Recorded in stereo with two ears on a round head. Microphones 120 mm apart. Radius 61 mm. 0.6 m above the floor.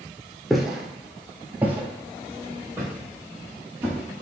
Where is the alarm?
No alarm in this recording.